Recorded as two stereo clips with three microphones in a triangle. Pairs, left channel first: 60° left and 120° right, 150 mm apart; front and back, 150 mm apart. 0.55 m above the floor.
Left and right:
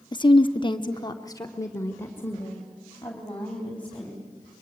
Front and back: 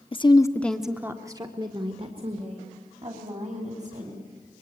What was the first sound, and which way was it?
A woman speaking, 20° left.